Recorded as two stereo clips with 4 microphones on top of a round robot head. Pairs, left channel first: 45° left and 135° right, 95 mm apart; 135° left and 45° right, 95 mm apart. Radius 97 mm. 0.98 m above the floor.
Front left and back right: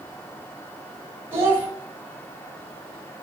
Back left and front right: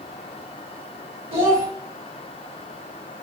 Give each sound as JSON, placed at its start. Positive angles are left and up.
{"t": 1.3, "sound": "a child speaking", "azimuth_deg": -70, "distance_m": 1.7}